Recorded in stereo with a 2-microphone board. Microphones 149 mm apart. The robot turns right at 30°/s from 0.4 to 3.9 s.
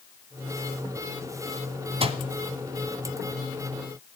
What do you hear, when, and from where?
2.0 s a microwave: 40° right (ahead or behind), 1.1 m